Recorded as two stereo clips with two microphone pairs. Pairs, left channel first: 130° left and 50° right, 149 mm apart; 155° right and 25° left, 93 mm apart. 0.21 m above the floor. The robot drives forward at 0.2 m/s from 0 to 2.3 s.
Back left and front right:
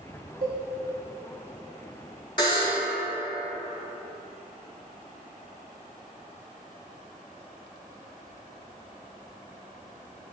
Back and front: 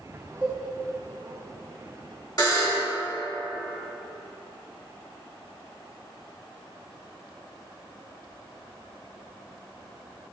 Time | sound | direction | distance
0.4 | a cowbell | 50° right | 1.2 m
2.4 | a buzzer | 175° left | 1.3 m